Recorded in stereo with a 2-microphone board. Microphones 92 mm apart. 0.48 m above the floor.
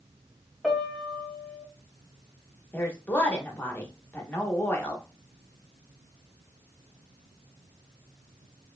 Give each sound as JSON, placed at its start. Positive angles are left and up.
{"t": 0.6, "sound": "a piano", "side_deg": 0, "distance_m": 0.7}
{"t": 2.7, "sound": "a woman speaking", "side_deg": 20, "distance_m": 0.8}